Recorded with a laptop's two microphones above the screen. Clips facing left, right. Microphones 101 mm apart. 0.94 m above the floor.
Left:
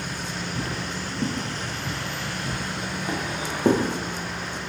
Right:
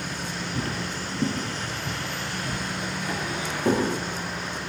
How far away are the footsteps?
About 1.1 m.